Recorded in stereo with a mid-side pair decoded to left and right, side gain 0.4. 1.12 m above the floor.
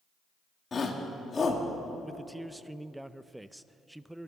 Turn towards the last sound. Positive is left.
turn(degrees=-5)